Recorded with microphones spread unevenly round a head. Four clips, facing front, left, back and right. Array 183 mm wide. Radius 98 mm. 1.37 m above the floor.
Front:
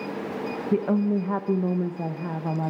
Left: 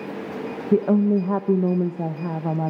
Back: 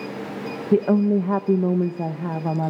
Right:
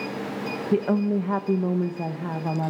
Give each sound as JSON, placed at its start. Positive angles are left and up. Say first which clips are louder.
{"t": 0.7, "sound": "a woman speaking", "louder": "left 5 dB, back 6 dB", "azimuth_deg": 145, "distance_m": 1.1}